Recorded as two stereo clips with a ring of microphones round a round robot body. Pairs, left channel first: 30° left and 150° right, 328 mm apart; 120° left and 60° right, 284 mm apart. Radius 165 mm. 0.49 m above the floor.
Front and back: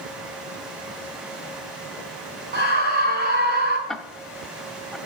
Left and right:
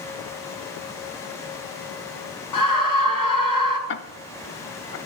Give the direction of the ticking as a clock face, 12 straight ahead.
8 o'clock.